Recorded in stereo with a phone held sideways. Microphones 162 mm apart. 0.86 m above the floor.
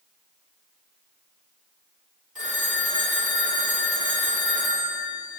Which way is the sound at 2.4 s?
55° right (ahead or behind).